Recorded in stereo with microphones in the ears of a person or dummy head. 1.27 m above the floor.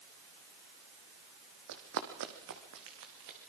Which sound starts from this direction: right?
Running footsteps, at 1.7 s.